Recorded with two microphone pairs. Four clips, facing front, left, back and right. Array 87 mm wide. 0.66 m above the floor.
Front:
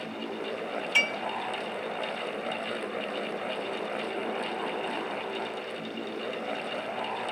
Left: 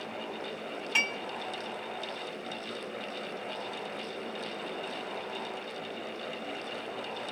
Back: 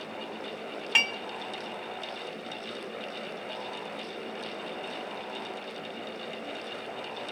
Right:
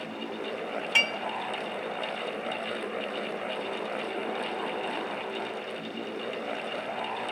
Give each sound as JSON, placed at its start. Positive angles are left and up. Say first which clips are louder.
{"t": 0.9, "sound": "dishes clattering", "louder": "right 3 dB, even", "azimuth_deg": -165, "distance_m": 1.3}